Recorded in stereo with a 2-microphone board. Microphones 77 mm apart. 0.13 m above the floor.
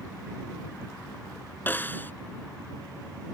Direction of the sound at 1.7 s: 25° left (ahead or behind).